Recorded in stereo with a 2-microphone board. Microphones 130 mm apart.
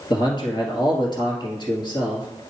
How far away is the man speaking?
About 1.7 m.